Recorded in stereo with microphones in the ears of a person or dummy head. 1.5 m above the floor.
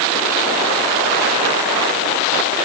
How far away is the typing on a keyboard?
No typing on a keyboard in this recording.